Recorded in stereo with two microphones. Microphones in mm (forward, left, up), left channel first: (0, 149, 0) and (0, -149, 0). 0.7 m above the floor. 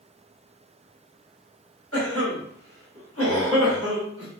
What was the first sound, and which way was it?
A cough, 50° left (ahead or behind).